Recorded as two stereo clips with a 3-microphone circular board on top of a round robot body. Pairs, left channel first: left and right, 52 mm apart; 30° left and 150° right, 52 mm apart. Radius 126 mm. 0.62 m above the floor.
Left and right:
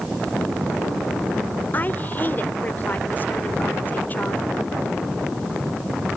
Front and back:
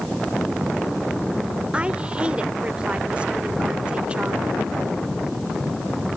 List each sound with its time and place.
1.7 s a woman speaking: 140° left